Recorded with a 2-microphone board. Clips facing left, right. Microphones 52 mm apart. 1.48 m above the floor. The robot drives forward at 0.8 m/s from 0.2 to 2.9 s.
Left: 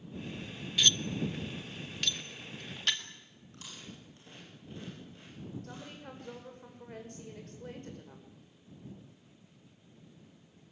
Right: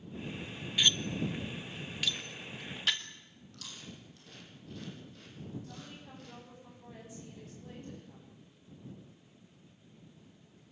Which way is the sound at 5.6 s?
60° left (ahead or behind).